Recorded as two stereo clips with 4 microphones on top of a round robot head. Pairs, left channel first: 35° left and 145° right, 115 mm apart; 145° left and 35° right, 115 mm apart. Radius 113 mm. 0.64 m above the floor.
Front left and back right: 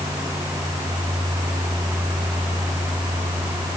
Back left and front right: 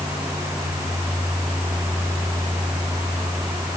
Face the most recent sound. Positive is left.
No sound to turn to.